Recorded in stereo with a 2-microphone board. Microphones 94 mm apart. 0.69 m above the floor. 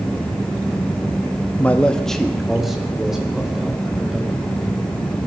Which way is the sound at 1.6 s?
20° left (ahead or behind).